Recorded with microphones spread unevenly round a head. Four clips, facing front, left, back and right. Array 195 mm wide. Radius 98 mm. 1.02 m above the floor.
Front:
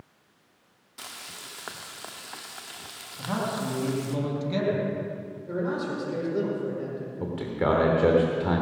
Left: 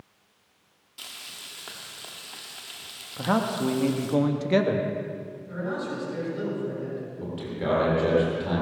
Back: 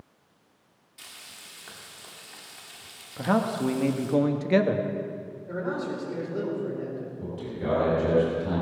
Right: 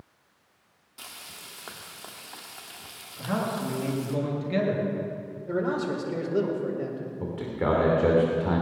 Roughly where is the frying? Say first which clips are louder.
Right 1 dB, front 7 dB; ahead.